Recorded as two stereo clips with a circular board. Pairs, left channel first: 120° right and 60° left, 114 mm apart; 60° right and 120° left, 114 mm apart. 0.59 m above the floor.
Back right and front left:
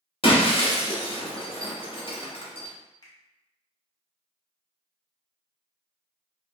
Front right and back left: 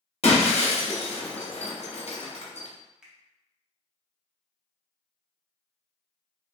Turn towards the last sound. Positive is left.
turn(degrees=-160)